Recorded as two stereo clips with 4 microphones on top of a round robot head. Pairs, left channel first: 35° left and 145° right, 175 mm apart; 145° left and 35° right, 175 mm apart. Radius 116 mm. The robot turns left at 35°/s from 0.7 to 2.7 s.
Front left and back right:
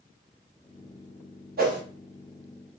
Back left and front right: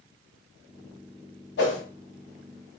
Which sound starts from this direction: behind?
A whoosh, at 1.6 s.